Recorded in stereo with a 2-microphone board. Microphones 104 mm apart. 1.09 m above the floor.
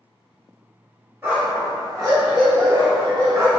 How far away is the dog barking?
About 1.3 m.